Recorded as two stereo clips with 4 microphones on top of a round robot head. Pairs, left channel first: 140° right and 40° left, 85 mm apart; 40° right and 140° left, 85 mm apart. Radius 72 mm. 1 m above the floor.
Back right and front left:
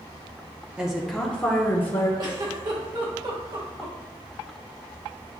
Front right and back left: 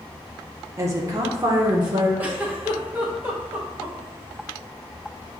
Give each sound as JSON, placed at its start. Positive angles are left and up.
{"t": 0.8, "sound": "a woman speaking", "azimuth_deg": 115, "distance_m": 0.8}
{"t": 2.2, "sound": "a giggle", "azimuth_deg": 70, "distance_m": 1.1}